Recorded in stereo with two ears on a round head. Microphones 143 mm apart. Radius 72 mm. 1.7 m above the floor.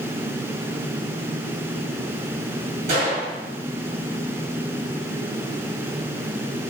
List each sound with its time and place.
2.9 s a gunshot: 45° right (ahead or behind), 1.5 m